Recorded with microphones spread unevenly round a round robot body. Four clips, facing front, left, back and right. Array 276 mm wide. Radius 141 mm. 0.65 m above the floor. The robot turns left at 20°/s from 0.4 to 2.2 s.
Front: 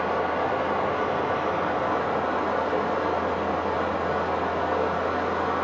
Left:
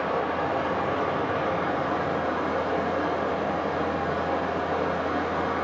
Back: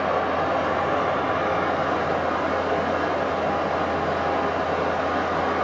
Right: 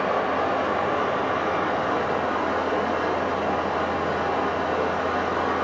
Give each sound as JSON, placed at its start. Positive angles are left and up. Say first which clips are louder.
{"t": 0.0, "sound": "running water", "louder": "right 3 dB, back 2 dB", "azimuth_deg": -155, "distance_m": 1.2}